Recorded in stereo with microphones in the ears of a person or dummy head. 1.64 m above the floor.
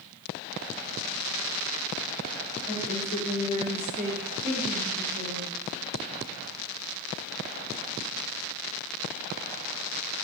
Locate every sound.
2.7 s a woman speaking: 50° left (ahead or behind), 0.9 m; by 5.5 s 65° right (ahead or behind), 1.0 m